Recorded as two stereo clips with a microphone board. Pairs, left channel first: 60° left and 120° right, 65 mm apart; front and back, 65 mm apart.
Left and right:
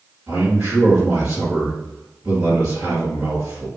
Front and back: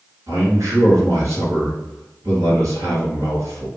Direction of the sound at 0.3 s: Straight behind.